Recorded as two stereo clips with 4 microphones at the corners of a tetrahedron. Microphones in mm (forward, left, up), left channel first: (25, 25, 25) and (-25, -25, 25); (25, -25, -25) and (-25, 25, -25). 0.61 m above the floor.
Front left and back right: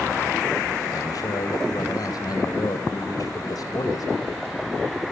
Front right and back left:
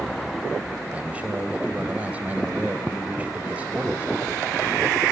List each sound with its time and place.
0.9 s a man speaking: 65° left, 3.5 m